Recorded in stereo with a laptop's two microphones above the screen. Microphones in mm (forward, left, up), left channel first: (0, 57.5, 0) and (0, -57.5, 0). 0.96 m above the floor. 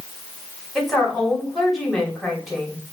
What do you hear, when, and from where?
0.8 s a woman speaking: centre (ahead or behind), 2.5 m